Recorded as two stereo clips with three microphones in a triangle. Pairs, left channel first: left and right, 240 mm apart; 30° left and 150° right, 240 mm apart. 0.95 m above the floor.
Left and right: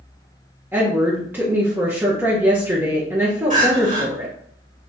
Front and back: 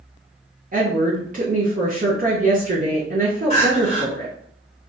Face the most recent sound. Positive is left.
turn(degrees=-35)